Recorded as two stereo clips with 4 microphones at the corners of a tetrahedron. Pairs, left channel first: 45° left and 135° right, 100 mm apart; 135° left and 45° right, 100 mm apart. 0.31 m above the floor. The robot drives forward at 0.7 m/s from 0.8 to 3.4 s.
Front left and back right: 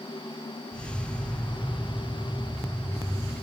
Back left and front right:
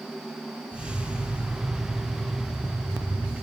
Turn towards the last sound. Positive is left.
No sound to turn to.